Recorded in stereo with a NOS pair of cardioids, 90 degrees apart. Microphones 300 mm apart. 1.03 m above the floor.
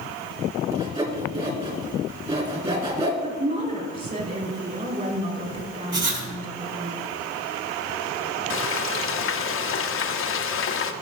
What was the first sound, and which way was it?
Sawing, 20° right.